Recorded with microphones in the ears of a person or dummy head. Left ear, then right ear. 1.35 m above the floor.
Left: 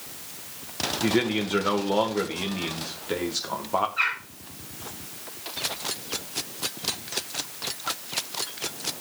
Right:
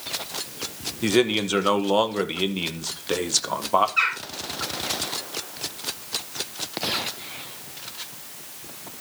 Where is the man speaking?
75° right (ahead or behind), 1.5 m.